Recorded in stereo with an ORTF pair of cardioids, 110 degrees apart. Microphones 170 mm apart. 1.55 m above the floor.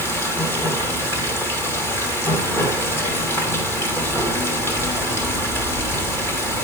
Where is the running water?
15° left, 3 m.